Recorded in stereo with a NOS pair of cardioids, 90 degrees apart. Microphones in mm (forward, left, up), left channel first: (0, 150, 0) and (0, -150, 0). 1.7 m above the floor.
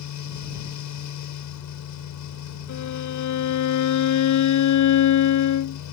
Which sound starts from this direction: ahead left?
A fan, at 0.0 s.